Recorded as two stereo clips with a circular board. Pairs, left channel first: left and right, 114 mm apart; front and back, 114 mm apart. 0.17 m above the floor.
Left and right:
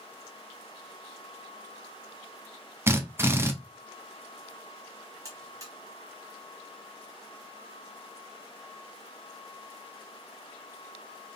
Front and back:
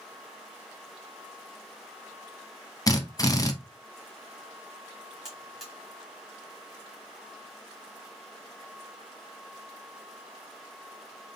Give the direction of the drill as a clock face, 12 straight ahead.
1 o'clock.